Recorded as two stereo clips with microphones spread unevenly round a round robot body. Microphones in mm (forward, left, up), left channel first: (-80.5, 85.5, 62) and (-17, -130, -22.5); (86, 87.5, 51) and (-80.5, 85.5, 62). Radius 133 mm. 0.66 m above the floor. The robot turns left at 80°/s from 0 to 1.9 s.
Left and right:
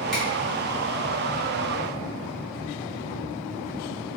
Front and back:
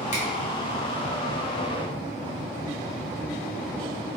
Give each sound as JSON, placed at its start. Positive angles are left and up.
{"t": 0.1, "sound": "a finger snap", "azimuth_deg": 0, "distance_m": 1.0}